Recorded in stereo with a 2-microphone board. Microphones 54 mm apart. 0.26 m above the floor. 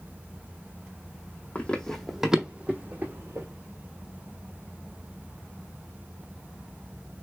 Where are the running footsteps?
25° left (ahead or behind), 0.7 m; by 3.5 s 50° right (ahead or behind), 1.0 m.